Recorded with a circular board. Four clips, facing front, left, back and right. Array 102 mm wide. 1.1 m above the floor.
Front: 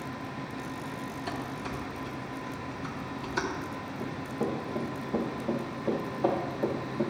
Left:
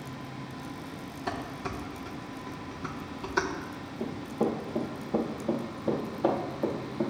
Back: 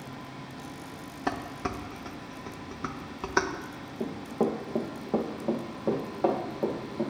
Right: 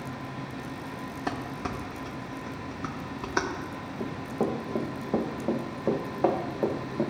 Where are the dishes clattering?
150° right, 0.9 m.